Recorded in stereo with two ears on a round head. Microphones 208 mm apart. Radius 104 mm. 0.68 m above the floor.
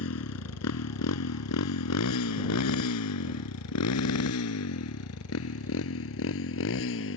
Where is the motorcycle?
65° left (ahead or behind); by 7.2 s 60° left (ahead or behind).